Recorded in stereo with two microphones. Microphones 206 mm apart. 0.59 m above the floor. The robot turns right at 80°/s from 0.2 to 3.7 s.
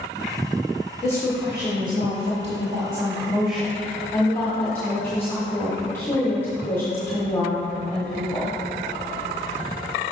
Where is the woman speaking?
160° left, 1.2 m; by 8.6 s 15° left, 1.2 m.